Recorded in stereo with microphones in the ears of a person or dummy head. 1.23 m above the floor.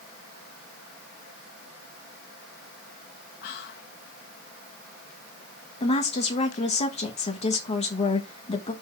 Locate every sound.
3.4 s whispering: 55° left (ahead or behind), 1.0 m
5.8 s a woman speaking: 35° left (ahead or behind), 1.4 m